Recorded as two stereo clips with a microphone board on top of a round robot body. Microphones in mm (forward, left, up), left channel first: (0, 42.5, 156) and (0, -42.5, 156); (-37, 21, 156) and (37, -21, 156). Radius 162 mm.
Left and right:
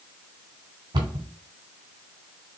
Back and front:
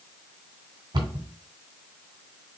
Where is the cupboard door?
60° right, 1.4 m.